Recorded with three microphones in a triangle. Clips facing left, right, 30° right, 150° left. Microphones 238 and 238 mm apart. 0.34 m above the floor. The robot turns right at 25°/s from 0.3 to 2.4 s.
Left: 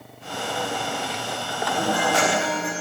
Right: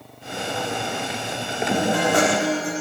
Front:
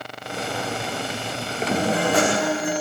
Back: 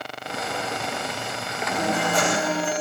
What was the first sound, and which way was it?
A guitar, 60° right.